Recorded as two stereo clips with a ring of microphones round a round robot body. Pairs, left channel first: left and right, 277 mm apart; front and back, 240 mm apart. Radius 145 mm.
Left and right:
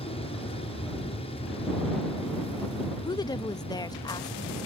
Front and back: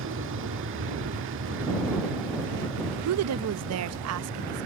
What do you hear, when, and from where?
0.0 s an aircraft: 160° left
3.0 s a woman speaking: 165° left